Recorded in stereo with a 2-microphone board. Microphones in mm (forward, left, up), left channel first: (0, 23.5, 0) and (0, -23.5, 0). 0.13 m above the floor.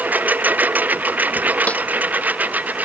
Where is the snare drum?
30° left (ahead or behind).